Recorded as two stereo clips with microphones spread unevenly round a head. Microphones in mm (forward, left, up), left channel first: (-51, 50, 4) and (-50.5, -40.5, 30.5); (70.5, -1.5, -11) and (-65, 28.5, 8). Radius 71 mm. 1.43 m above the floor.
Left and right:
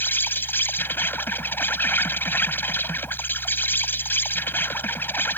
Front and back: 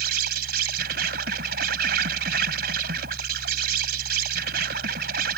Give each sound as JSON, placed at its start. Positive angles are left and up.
{"t": 0.0, "sound": "an insect", "azimuth_deg": 165}